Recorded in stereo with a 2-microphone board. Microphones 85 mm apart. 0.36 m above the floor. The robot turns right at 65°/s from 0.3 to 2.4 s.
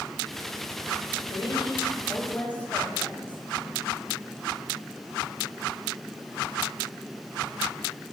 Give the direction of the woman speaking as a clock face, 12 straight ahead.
9 o'clock.